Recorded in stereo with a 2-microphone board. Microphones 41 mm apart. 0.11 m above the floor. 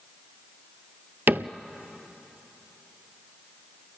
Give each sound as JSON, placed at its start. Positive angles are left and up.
{"t": 1.3, "sound": "a cupboard door", "side_deg": -60, "distance_m": 0.6}